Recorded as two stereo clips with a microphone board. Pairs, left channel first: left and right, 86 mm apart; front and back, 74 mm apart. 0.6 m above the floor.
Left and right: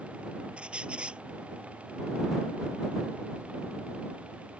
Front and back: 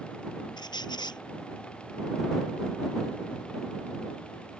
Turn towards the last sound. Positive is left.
turn(degrees=-10)